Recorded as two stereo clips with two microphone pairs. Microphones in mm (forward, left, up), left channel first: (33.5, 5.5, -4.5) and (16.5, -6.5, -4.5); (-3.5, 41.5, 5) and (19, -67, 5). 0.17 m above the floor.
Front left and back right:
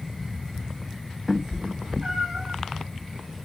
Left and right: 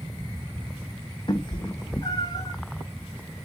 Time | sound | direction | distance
1.3 | a cat meowing | 150° left | 0.8 m